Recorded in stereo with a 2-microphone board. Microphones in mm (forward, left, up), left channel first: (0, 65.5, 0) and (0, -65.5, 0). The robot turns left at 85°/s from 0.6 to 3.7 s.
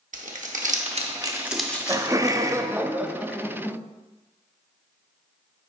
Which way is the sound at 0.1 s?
75° right (ahead or behind).